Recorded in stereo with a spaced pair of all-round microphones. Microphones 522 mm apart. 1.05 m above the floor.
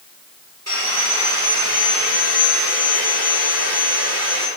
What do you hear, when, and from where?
0.7 s sawing: 30° right (ahead or behind), 4 m